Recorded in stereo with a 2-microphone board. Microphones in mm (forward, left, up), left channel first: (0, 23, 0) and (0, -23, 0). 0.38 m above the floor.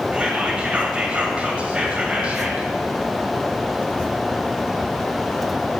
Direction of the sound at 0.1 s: 25° right (ahead or behind).